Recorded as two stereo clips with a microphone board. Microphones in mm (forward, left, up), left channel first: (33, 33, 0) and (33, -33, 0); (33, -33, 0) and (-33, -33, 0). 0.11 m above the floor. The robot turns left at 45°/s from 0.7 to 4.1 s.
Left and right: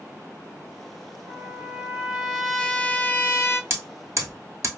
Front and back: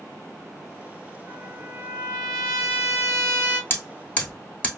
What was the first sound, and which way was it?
A trumpet, 130° right.